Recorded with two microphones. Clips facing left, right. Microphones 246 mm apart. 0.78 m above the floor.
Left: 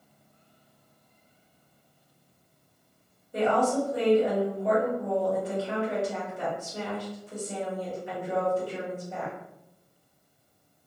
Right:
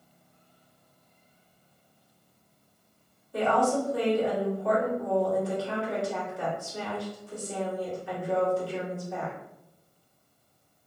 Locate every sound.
3.3 s a woman speaking: 20° left (ahead or behind), 1.6 m